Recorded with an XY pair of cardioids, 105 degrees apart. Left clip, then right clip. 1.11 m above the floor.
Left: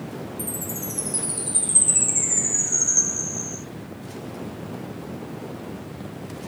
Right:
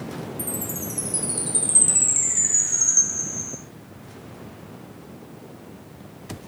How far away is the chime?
About 9 m.